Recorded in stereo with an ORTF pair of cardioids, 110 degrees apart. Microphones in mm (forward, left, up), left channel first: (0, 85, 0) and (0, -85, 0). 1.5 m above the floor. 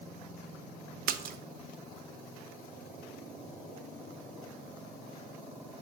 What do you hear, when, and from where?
1.1 s a splash: 55° right, 0.7 m